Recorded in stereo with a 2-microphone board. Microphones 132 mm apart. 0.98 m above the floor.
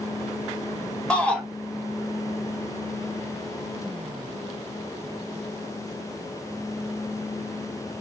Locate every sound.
1.1 s a shout: 10° left (ahead or behind), 1.2 m